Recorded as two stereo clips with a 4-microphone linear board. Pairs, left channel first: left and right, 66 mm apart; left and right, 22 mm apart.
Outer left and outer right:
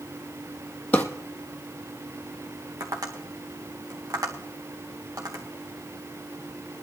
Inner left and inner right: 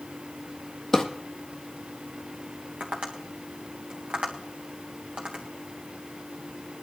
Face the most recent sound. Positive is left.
turn(degrees=-65)  # may be behind; listen again after turning